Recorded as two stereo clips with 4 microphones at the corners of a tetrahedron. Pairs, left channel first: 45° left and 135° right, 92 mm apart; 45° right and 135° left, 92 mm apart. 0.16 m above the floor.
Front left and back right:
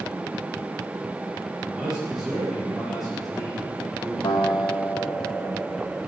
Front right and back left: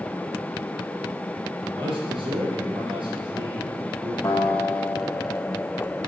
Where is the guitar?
10° left, 2.5 m.